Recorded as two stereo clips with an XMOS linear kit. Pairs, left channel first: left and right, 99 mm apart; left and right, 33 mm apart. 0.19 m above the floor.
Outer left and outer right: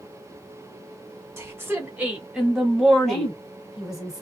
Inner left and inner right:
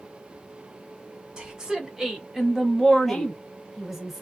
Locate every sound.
1.4 s a woman speaking: 30° right (ahead or behind), 1.4 m; by 3.3 s 10° left (ahead or behind), 1.2 m
3.1 s a woman speaking: 5° right (ahead or behind), 1.4 m